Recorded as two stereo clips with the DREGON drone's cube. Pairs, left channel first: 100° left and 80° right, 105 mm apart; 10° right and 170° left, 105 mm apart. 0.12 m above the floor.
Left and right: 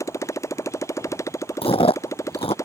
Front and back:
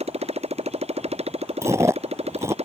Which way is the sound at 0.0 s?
160° left.